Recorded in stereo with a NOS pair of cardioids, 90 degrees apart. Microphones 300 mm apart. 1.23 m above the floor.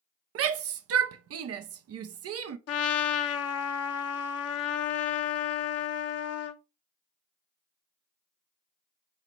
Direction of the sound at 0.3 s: 55° right.